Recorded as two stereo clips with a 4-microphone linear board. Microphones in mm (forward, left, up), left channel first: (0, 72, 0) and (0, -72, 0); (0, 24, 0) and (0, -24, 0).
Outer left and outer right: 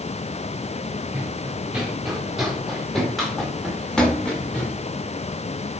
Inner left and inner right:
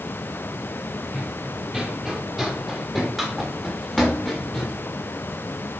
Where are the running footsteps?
10° right (ahead or behind), 3 m; by 4.8 s 5° left (ahead or behind), 7 m.